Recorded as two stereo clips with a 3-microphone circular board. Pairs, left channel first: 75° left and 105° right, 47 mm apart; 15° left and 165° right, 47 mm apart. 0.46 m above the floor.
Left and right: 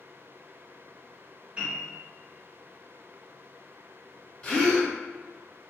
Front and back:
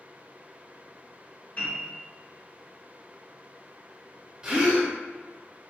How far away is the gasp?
About 1.2 m.